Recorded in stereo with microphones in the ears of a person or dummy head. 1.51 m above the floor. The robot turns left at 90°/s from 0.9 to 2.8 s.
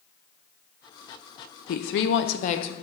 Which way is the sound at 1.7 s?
120° left.